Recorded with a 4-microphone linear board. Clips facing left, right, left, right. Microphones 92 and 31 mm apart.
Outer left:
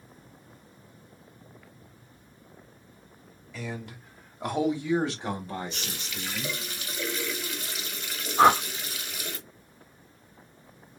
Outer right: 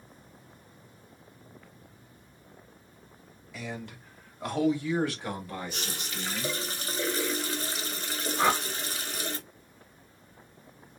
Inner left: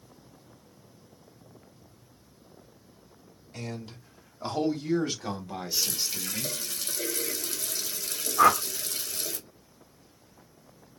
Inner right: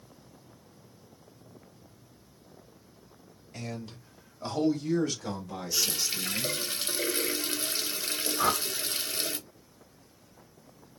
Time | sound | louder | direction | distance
3.5 | a man speaking | outer left 1 dB, inner left 1 dB | 5° left (ahead or behind) | 1.0 m
5.7 | a running tap | outer right 1 dB, inner right 2 dB | 35° right (ahead or behind) | 0.8 m
8.4 | a whoosh | outer left 7 dB, inner left 8 dB | 55° left (ahead or behind) | 0.5 m